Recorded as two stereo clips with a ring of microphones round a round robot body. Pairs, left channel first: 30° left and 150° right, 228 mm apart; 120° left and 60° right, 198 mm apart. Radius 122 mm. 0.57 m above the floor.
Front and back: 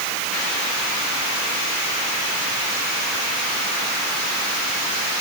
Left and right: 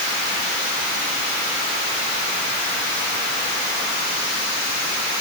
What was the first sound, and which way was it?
Only background noise.